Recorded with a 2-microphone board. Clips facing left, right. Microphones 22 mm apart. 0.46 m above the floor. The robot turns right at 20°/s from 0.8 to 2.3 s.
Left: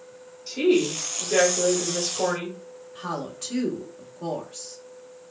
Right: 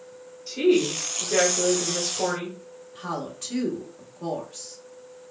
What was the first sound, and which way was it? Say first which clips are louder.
A woman speaking: even; 10° left (ahead or behind).